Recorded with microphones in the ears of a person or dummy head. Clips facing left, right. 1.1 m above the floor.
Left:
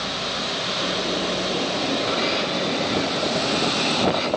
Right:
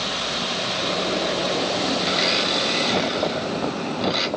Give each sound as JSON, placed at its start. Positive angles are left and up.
{"t": 2.1, "sound": "a blender", "side_deg": -35, "distance_m": 1.8}